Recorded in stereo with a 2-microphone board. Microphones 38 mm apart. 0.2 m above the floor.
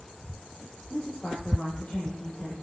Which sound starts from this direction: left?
A woman speaking, at 0.9 s.